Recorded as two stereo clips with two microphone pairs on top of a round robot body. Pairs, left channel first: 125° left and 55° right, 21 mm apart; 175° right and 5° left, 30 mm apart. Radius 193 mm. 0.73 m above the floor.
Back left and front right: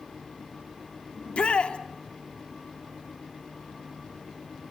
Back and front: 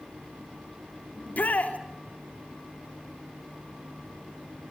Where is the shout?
155° left, 2.5 m.